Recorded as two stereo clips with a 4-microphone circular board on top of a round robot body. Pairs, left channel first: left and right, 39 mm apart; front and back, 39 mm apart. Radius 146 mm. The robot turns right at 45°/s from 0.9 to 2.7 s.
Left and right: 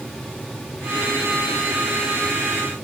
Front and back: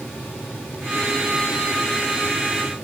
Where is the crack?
No crack in this recording.